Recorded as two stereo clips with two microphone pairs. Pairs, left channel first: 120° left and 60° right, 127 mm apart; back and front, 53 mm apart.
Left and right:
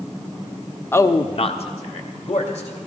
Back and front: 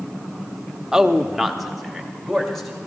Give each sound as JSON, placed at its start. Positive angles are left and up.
{"t": 0.9, "sound": "a man speaking", "azimuth_deg": 70, "distance_m": 0.6}